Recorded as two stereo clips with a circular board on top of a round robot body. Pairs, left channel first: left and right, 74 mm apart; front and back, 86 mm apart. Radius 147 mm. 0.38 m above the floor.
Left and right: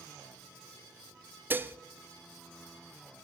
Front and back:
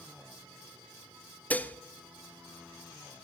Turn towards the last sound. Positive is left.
turn(degrees=-55)